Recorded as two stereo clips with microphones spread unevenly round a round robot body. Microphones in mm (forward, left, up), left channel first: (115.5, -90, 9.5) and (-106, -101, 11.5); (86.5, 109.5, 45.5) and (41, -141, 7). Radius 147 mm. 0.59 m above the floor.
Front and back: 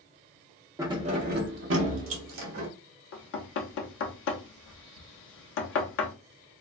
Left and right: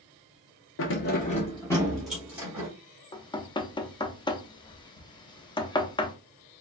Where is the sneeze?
I don't hear a sneeze.